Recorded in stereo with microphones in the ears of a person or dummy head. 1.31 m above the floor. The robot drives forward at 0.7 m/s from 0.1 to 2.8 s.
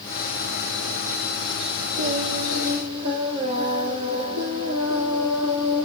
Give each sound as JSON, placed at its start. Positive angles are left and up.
{"t": 2.0, "sound": "singing", "side_deg": -40, "distance_m": 9.0}